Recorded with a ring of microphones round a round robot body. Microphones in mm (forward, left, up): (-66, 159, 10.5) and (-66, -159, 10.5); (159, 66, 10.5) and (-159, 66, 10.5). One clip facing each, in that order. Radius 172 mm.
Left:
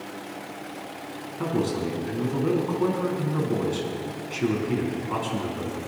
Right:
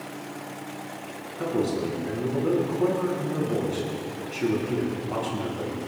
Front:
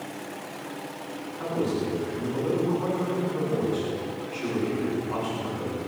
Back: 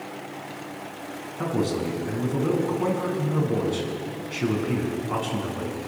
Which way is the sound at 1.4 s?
165° left.